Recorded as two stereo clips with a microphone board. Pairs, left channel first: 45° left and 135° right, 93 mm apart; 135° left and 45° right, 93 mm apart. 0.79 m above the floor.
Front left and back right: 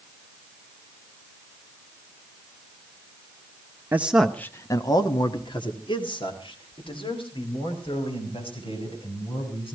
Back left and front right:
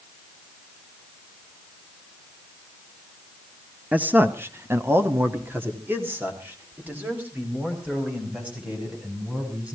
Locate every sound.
3.9 s a man speaking: 100° right, 0.9 m; by 9.8 s 25° left, 7.5 m